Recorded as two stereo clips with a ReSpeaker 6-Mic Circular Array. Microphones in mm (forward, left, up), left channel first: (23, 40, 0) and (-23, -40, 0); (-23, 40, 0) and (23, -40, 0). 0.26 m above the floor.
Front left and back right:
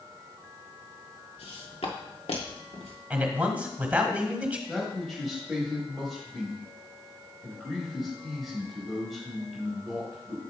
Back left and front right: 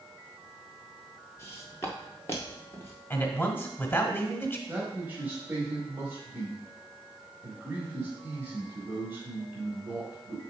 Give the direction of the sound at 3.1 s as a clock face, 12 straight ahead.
6 o'clock.